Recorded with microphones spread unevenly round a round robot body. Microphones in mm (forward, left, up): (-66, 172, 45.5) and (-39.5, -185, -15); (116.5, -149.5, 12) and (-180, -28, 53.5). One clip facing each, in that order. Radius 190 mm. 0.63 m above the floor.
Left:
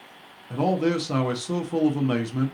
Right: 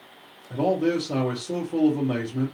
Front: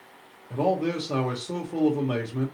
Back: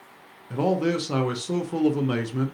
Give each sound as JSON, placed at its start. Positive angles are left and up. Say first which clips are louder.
{"t": 0.5, "sound": "a man speaking", "louder": "even, back 2 dB", "azimuth_deg": 130, "distance_m": 0.8}